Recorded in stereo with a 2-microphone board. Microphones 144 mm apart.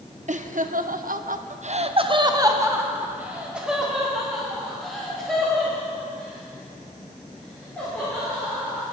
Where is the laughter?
60° right (ahead or behind), 1.0 m; by 8.8 s 10° left (ahead or behind), 5 m.